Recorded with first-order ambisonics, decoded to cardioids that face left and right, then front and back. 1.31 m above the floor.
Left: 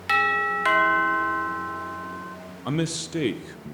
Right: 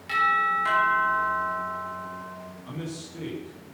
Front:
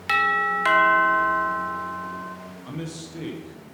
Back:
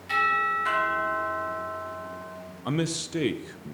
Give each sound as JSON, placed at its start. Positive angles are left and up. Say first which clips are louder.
{"t": 0.1, "sound": "a doorbell", "louder": "left 1 dB, front 3 dB", "azimuth_deg": 40, "distance_m": 1.4}
{"t": 2.6, "sound": "a man speaking", "louder": "left 12 dB, back 9 dB", "azimuth_deg": 130, "distance_m": 0.6}